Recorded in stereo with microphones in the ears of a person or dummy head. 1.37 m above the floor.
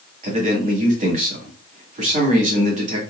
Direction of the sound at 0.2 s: 40° right (ahead or behind).